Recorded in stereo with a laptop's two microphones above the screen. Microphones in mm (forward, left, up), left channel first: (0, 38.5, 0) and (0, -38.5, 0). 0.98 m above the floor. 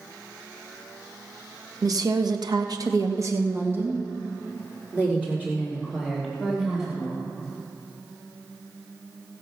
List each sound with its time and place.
1.8 s a woman speaking: 50° right (ahead or behind), 1.1 m; by 7.2 s 10° right (ahead or behind), 4.5 m